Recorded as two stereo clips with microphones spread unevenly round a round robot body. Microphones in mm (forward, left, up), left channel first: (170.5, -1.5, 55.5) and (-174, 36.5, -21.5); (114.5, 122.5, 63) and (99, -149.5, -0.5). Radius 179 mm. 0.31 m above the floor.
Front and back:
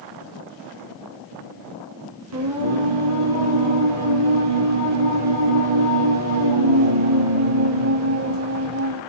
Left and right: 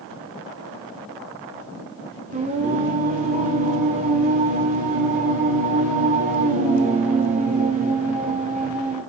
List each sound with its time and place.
2.3 s singing: 155° right, 4 m